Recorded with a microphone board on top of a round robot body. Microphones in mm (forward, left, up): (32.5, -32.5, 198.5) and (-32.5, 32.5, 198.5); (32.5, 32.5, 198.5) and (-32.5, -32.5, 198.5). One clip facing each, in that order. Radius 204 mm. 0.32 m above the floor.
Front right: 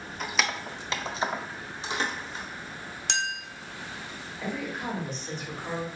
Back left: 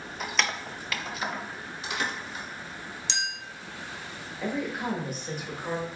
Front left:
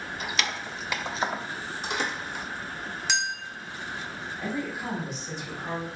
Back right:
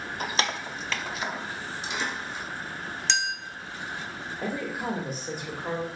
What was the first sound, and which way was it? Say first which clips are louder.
Keys jangling: even, back right 3 dB; 140° right.